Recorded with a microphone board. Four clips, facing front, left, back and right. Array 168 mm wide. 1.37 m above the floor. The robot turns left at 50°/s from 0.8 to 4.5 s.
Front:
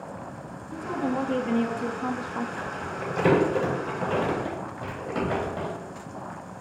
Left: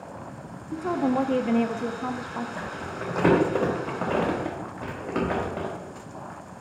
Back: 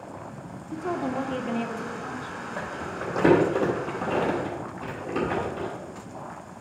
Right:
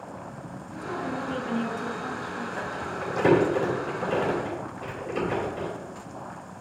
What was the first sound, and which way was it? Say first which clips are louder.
A woman speaking: left 8 dB, even; 120° left.